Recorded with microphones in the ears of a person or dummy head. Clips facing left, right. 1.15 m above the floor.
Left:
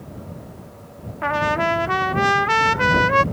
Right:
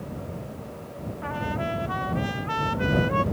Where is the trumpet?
75° left (ahead or behind).